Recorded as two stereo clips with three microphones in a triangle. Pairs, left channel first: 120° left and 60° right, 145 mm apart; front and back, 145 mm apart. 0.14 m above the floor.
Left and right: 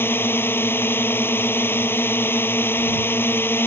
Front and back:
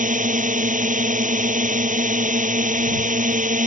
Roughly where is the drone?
Behind.